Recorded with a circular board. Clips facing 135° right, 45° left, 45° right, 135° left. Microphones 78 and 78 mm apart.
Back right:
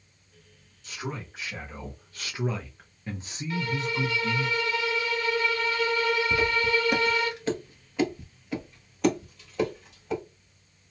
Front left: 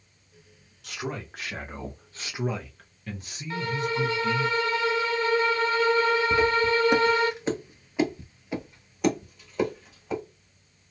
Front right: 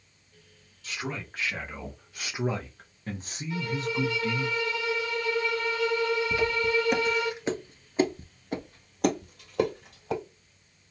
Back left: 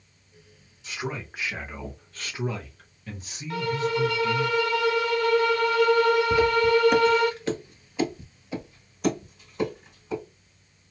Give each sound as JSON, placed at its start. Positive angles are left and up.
{"t": 0.8, "sound": "a man speaking", "azimuth_deg": 65, "distance_m": 1.1}
{"t": 3.5, "sound": "a violin", "azimuth_deg": 105, "distance_m": 0.6}
{"t": 6.3, "sound": "footsteps", "azimuth_deg": 90, "distance_m": 0.9}